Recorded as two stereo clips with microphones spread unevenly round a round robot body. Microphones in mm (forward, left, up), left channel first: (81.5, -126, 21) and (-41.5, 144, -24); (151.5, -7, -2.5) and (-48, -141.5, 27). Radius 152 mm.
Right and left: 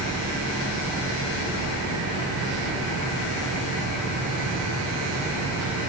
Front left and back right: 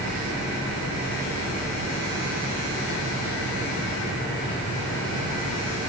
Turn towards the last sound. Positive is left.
No sound to turn to.